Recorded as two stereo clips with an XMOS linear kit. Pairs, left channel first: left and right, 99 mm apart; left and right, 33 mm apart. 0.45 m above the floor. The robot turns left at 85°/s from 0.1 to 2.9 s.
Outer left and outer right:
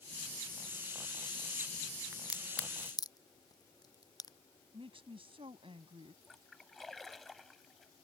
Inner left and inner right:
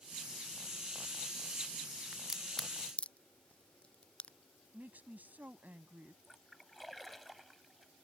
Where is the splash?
Centre (ahead or behind).